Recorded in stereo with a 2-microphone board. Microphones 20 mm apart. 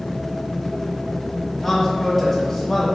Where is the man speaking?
10° left (ahead or behind), 1.1 m.